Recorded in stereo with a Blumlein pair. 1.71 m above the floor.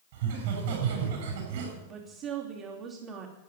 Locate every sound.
0.1 s laughter: 55° right, 8 m
1.9 s a woman speaking: 40° right, 3 m